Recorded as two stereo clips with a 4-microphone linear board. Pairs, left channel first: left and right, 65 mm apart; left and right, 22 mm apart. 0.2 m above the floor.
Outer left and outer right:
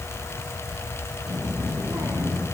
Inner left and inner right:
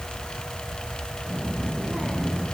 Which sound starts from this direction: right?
A child speaking, at 1.3 s.